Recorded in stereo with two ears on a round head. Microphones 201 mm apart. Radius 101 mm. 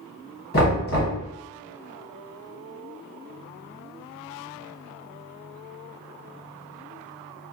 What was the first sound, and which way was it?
Knocking, 45° left (ahead or behind).